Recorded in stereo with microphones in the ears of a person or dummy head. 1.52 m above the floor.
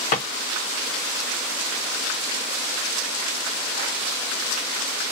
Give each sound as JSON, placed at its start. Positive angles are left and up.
{"t": 0.1, "sound": "a drawer", "side_deg": 35, "distance_m": 1.1}